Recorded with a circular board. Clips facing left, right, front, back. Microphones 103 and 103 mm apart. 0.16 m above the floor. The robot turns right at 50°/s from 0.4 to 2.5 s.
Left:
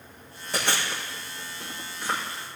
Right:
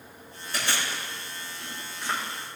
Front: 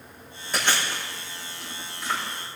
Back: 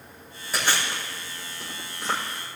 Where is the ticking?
No ticking in this recording.